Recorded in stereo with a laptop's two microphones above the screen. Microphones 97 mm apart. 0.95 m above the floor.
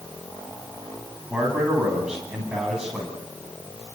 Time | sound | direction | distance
1.3 | a man speaking | 10° right (ahead or behind) | 8 m